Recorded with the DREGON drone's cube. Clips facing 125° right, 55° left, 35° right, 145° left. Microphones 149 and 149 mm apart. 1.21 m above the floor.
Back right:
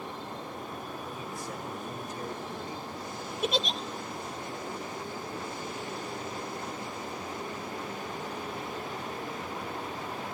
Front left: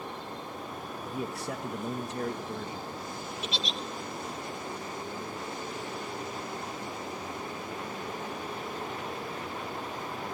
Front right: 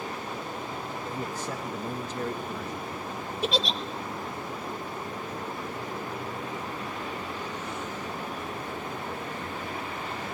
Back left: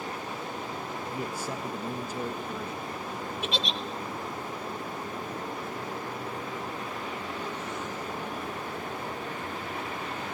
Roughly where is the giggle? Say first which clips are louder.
Back right 9 dB, front right 6 dB; right.